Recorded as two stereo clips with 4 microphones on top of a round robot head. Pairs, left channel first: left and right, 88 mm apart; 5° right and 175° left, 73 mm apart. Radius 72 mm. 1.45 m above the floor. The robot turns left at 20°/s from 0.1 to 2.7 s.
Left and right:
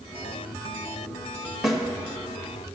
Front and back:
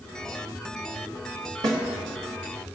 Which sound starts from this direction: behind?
A snare drum, at 1.6 s.